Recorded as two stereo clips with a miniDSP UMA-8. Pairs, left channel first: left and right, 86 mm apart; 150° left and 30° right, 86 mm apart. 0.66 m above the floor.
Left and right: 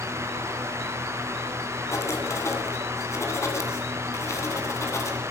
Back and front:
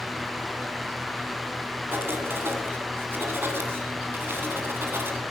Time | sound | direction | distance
1.9 | writing | 35° left | 2 m